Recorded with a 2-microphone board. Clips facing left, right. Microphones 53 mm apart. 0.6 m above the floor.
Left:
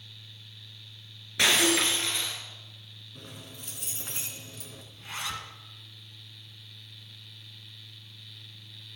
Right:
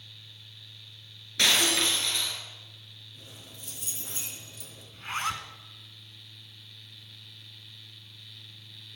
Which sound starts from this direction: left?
Keys jangling, at 3.1 s.